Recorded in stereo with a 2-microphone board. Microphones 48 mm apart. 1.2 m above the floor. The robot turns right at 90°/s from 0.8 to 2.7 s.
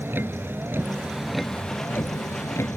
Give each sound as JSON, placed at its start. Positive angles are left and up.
{"t": 0.0, "sound": "a vehicle", "azimuth_deg": -50}